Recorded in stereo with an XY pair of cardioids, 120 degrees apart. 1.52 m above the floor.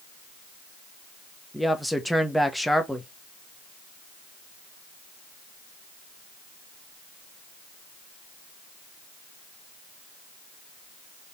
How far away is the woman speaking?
About 1.1 m.